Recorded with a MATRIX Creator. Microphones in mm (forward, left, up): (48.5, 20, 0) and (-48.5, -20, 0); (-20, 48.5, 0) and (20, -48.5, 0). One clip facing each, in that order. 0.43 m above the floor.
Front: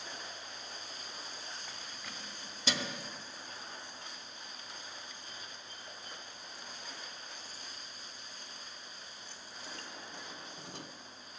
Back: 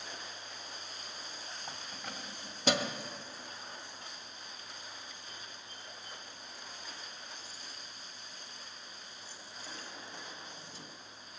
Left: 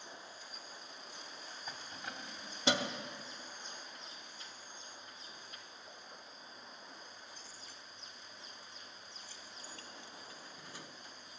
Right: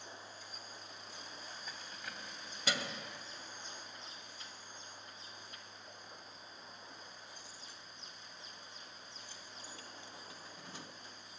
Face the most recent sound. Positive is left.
turn(degrees=0)